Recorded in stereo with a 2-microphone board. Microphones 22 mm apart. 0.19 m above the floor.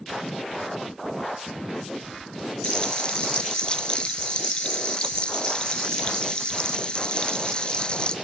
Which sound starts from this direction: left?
Frying, at 2.6 s.